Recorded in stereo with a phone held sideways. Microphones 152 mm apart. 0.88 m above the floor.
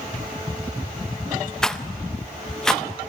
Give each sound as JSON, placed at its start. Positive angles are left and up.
{"t": 1.6, "sound": "a rattle", "side_deg": 5, "distance_m": 0.6}